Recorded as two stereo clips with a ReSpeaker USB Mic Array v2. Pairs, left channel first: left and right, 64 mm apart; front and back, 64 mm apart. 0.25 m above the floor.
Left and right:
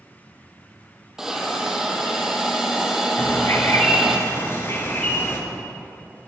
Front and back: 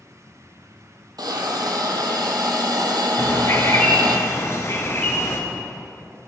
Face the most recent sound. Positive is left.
turn(degrees=45)